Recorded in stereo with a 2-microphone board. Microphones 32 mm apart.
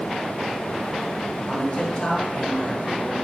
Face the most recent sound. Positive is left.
turn(degrees=30)  # may be behind; listen again after turning